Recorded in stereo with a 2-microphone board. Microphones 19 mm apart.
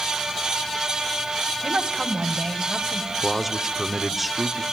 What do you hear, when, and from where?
1.6 s a woman speaking: 70° right (ahead or behind), 2.5 m; by 3.1 s 60° right (ahead or behind), 2.5 m
3.2 s a man speaking: 15° right (ahead or behind), 1.3 m